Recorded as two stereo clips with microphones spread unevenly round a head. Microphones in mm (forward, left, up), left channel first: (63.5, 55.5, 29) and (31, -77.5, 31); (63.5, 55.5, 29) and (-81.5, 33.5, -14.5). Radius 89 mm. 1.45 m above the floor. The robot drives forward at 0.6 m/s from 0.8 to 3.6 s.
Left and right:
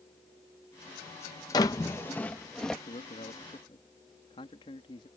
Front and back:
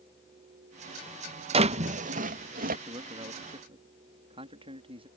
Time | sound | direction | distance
1.5 | a drawer | 135° left | ?
2.9 | a man speaking | 130° left | ?